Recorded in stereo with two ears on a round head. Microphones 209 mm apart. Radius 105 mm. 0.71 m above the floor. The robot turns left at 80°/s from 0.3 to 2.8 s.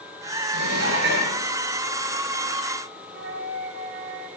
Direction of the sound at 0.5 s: 85° right.